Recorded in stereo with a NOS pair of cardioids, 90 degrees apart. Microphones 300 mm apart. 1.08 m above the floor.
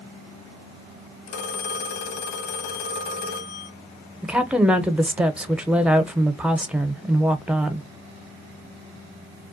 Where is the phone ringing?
70° left, 0.8 m.